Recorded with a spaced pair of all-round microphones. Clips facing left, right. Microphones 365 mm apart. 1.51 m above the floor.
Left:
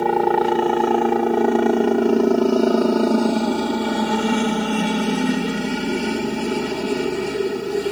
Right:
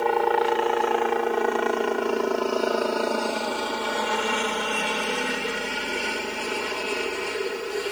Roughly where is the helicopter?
Left.